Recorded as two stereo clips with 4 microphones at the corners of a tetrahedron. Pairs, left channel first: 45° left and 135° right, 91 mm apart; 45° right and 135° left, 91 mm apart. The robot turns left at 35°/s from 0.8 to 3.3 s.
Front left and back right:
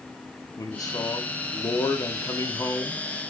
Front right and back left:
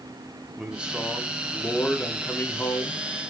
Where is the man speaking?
65° left, 0.8 m; by 3.3 s 25° right, 0.8 m.